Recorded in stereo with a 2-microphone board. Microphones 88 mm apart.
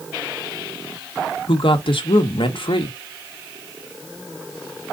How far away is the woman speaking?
About 1.0 m.